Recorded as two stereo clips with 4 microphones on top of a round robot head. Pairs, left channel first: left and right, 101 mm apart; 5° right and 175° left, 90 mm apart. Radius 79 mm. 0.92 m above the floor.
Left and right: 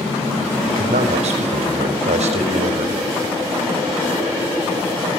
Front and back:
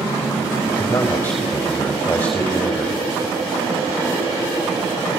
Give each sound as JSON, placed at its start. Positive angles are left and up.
{"t": 0.7, "sound": "a man speaking", "azimuth_deg": -80, "distance_m": 5.0}